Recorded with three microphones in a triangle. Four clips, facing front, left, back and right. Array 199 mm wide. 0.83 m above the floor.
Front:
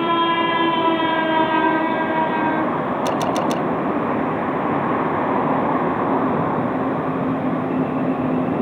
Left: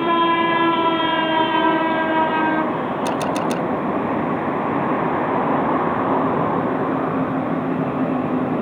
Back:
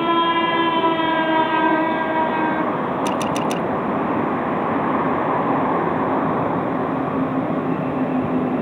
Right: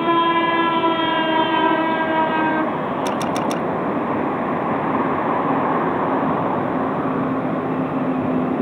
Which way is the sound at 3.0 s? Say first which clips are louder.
Even, front 3 dB; 5° left.